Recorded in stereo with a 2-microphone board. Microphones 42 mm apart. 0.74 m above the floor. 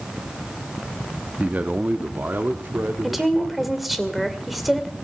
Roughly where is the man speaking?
Right.